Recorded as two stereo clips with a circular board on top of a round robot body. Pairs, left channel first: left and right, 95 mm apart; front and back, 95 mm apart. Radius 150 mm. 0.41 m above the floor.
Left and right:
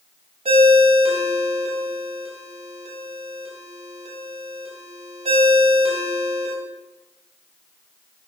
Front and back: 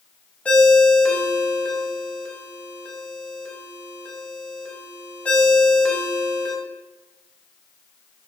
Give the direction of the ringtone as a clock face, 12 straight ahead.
3 o'clock.